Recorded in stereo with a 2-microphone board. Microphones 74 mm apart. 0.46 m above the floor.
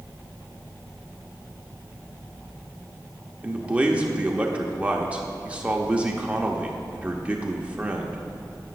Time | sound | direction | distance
3.4 | a man speaking | 15° right (ahead or behind) | 0.7 m